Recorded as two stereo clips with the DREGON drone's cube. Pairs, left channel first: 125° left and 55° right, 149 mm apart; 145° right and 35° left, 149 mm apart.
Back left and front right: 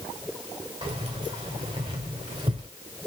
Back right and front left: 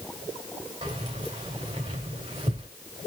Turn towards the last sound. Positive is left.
turn(degrees=-5)